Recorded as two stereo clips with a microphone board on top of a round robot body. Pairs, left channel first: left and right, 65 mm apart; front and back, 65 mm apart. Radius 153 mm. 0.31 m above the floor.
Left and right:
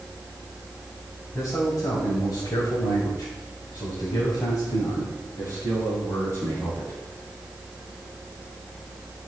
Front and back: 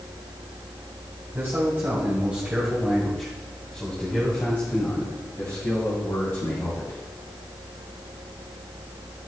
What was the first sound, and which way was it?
A man speaking, 130° left.